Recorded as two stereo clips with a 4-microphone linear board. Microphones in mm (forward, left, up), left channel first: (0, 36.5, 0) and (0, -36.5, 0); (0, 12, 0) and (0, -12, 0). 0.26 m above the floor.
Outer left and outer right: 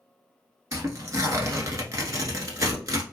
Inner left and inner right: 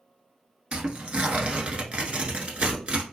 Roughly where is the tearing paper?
Right.